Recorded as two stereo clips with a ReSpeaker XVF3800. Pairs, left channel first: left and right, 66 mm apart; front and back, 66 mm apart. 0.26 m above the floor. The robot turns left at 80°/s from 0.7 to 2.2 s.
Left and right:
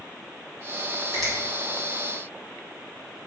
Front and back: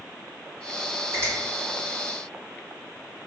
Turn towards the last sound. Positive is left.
turn(degrees=90)